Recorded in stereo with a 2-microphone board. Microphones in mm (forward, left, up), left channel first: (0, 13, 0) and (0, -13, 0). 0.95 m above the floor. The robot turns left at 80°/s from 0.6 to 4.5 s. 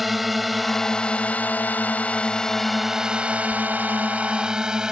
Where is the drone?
Centre (ahead or behind); by 4.9 s 25° right (ahead or behind).